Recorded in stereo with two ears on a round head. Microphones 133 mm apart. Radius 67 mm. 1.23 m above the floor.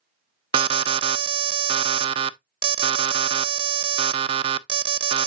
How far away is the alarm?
About 0.5 m.